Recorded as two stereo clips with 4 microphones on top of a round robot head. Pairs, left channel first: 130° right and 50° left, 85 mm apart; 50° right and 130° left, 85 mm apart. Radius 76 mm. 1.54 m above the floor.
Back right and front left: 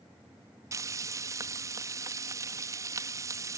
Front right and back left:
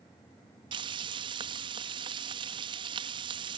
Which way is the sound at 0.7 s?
105° left.